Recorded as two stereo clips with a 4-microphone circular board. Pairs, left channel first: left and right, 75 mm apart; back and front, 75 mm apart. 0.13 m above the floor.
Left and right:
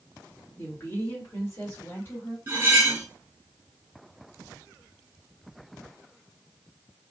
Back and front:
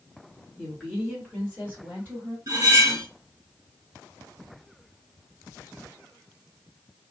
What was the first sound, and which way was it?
A woman speaking, 85° left.